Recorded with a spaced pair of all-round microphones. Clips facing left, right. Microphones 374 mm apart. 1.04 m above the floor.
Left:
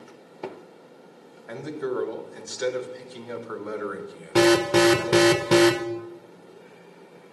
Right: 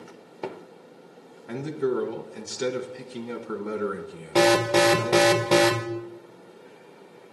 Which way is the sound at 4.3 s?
25° left (ahead or behind).